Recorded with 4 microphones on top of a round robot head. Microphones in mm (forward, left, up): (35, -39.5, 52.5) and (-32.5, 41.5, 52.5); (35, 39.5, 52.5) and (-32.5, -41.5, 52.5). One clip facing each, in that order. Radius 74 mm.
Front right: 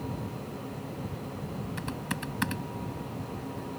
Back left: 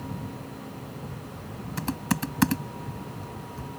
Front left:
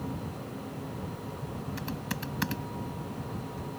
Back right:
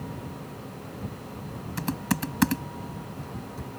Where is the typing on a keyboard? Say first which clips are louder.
Back left 11 dB, back right 12 dB; 175° right.